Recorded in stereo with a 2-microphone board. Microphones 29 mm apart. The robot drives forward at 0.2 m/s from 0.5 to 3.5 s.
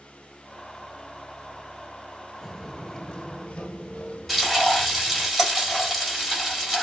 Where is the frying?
5° left (ahead or behind), 2.0 m.